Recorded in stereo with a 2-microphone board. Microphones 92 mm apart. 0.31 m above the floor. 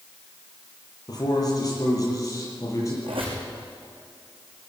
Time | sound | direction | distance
1.1 | a man speaking | 45° left (ahead or behind) | 8 m
3.0 | a squeak | 75° right (ahead or behind) | 6 m